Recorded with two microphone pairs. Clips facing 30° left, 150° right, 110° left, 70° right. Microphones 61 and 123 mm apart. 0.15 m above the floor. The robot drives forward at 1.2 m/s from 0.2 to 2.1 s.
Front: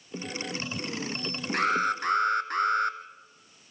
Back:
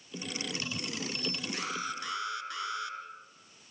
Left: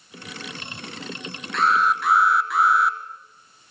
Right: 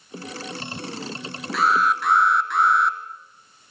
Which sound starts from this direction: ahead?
An alarm, at 1.5 s.